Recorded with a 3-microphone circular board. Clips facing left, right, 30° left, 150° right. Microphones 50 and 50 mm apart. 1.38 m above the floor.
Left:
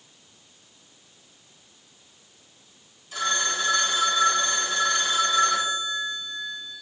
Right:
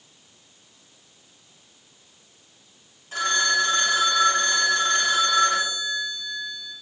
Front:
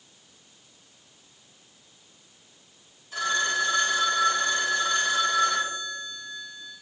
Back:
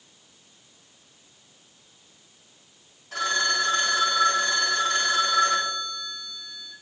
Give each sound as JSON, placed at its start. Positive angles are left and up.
{"t": 3.1, "sound": "a phone ringing", "azimuth_deg": -140, "distance_m": 2.5}